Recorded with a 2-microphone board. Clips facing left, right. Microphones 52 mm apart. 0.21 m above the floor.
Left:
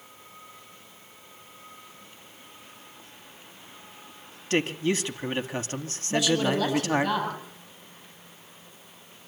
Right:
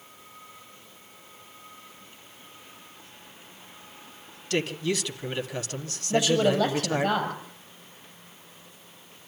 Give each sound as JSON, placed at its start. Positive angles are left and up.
{"t": 4.5, "sound": "a man speaking", "side_deg": 30, "distance_m": 1.5}
{"t": 6.1, "sound": "a woman speaking", "side_deg": -25, "distance_m": 7.0}